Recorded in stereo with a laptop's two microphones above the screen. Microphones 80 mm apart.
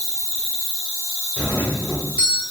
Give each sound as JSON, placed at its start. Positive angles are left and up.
{"t": 0.0, "sound": "an insect", "side_deg": 20, "distance_m": 1.5}
{"t": 1.4, "sound": "a doorbell", "side_deg": 10, "distance_m": 0.9}